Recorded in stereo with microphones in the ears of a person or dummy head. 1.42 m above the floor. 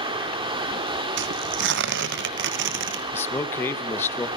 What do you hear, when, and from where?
0.0 s running water: 20° right (ahead or behind), 3.5 m
1.2 s tearing paper: 55° right (ahead or behind), 1.7 m
3.1 s a man speaking: 10° left (ahead or behind), 1.9 m